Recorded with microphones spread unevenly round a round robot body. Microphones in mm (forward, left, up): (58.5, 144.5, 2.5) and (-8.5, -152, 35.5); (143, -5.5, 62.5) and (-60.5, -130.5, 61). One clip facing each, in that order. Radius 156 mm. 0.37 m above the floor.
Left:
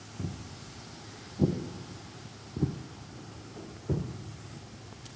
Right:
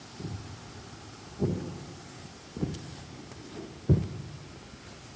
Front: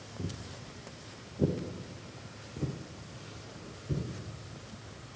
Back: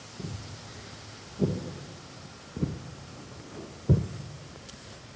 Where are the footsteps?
110° left, 2.5 m; by 4.0 s 140° right, 1.0 m.